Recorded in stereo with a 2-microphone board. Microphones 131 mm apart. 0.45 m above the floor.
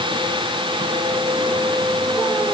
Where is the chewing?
I don't hear chewing.